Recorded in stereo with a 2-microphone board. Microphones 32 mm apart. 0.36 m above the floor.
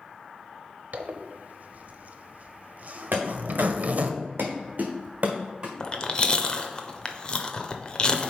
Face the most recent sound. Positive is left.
turn(degrees=25)  # may be behind; listen again after turning